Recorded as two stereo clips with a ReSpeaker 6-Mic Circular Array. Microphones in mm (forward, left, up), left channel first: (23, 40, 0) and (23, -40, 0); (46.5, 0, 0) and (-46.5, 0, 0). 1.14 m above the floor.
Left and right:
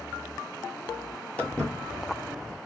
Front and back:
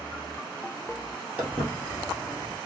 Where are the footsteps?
130° left, 1.2 m; by 2.6 s 135° right, 1.7 m.